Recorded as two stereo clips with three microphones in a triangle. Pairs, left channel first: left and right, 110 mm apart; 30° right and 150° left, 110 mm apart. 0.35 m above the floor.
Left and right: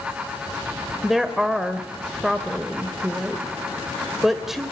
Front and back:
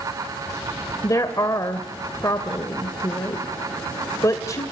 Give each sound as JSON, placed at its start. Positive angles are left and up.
{"t": 1.0, "sound": "a woman speaking", "azimuth_deg": -5, "distance_m": 1.5}